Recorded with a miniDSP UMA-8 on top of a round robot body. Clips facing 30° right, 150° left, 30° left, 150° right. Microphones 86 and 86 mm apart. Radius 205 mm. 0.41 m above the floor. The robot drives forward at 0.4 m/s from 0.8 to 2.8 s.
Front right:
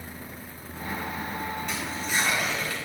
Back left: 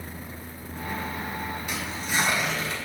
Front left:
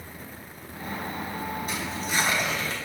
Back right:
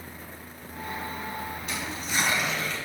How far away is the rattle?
No rattle in this recording.